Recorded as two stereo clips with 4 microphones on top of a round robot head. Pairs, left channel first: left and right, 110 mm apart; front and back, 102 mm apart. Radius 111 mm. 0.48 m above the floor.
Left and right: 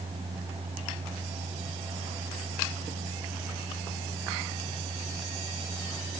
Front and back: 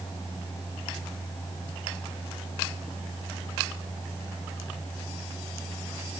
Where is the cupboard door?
I don't hear a cupboard door.